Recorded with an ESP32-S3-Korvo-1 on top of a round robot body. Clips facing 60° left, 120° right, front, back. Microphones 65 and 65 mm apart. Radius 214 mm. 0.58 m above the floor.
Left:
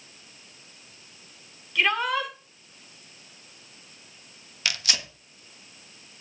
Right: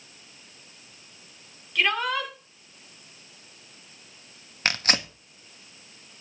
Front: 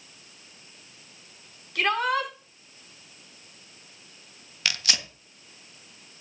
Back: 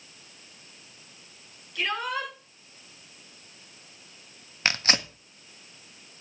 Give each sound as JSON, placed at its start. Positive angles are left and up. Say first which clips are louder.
{"t": 1.8, "sound": "a shout", "louder": "left 1 dB, front 5 dB", "azimuth_deg": -30, "distance_m": 6.5}
{"t": 4.7, "sound": "tearing paper", "louder": "right 4 dB, back 4 dB", "azimuth_deg": -145, "distance_m": 1.5}